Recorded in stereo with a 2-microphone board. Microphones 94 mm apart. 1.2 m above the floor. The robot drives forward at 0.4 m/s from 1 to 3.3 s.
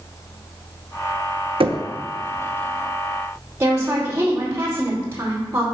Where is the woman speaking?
25° right (ahead or behind), 2.5 m.